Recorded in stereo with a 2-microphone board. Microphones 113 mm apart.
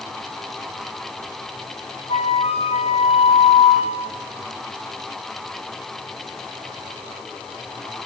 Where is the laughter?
I don't hear laughter.